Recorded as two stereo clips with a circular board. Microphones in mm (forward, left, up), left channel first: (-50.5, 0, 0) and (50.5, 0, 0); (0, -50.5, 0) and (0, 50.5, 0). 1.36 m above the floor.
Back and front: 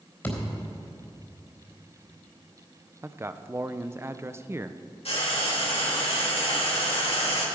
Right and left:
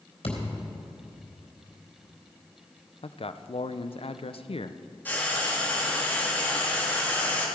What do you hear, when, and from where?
0.2 s a thud: 110° right, 3.5 m
3.0 s a man speaking: 65° right, 0.6 m
5.0 s frying: 160° right, 3 m